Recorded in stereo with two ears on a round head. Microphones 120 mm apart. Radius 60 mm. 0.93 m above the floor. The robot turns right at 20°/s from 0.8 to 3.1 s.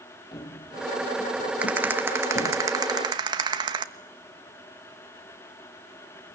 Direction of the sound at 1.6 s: 10° right (ahead or behind).